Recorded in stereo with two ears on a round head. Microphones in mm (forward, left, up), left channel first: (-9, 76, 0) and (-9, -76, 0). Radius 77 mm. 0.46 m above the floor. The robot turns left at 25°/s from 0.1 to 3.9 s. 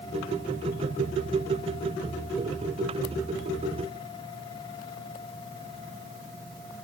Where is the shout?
No shout in this recording.